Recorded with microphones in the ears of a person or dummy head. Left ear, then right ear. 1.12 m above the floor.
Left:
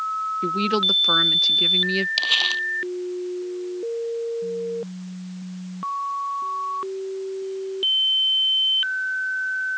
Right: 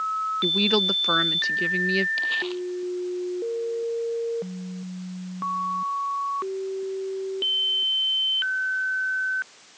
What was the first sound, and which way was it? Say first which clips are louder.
A woman speaking: even; 10° right (ahead or behind).